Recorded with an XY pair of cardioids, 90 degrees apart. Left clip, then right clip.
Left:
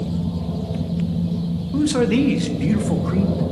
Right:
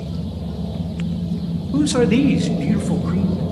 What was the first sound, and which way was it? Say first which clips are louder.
A man speaking: right 2 dB; 25° right.